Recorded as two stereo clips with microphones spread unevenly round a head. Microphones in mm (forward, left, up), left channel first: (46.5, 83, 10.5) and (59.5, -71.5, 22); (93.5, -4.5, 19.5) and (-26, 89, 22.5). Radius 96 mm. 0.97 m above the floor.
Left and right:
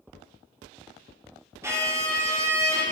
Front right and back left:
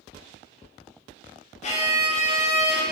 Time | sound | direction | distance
1.6 | a violin | 10° right | 0.6 m